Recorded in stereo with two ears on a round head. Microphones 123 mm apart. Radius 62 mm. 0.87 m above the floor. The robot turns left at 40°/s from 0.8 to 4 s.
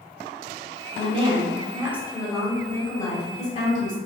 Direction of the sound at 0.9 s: 125° right.